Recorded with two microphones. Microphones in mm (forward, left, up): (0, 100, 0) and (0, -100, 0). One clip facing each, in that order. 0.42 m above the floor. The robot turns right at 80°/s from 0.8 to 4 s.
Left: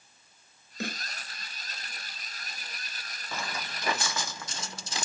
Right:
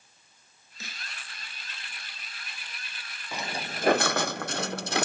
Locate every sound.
0.8 s a snare drum: 65° left (ahead or behind); by 1.1 s 45° left (ahead or behind)
3.3 s footsteps: 10° right (ahead or behind); by 5.0 s 75° right (ahead or behind)